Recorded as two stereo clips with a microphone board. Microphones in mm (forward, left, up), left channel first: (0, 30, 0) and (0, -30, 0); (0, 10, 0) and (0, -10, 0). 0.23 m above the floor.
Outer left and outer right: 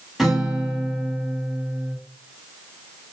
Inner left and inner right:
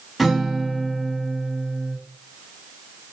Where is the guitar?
Centre (ahead or behind), 7.5 m.